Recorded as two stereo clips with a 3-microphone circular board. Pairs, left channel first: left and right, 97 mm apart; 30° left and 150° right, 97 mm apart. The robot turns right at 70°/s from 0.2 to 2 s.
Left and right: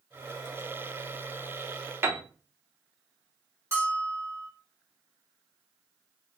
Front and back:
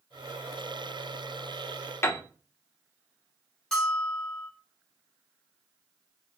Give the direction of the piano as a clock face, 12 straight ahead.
1 o'clock.